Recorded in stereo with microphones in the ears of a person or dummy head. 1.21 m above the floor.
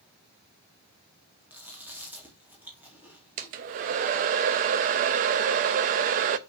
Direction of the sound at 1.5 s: 10° right (ahead or behind).